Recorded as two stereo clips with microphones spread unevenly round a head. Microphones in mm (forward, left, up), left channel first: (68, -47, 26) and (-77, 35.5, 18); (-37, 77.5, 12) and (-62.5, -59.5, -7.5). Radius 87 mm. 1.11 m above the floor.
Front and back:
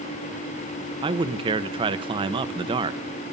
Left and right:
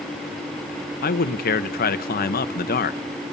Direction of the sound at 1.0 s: 90° left.